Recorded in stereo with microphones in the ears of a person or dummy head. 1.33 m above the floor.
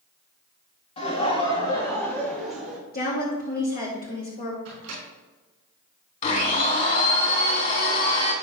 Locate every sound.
1.0 s laughter: 35° left (ahead or behind), 2 m; by 2.8 s 5° right (ahead or behind), 1.8 m
2.9 s a woman speaking: 50° left (ahead or behind), 3 m
4.7 s a microwave: 65° right (ahead or behind), 3 m
6.2 s a blender: 45° left (ahead or behind), 2.5 m